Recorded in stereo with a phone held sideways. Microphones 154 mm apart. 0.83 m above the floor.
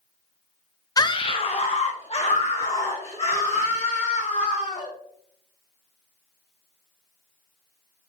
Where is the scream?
25° left (ahead or behind), 0.5 m; by 4.9 s 40° left (ahead or behind), 4 m.